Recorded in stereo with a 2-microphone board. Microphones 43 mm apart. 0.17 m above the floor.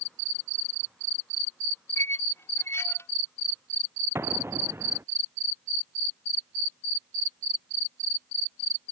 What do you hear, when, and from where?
2.0 s a squeak: 75° left (ahead or behind)
4.2 s an explosion: 80° right